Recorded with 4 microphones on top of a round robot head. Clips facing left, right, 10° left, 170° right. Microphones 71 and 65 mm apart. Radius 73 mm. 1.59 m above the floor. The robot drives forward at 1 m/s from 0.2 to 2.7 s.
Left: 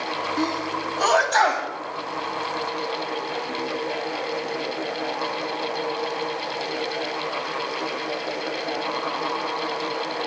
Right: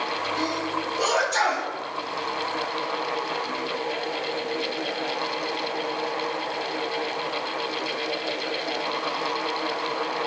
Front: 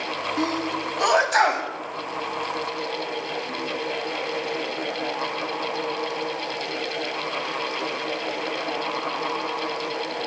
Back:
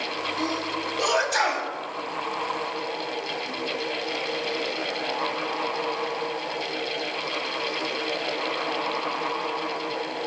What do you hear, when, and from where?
0.4 s a sneeze: 45° left, 3 m; by 1.7 s 70° left, 2 m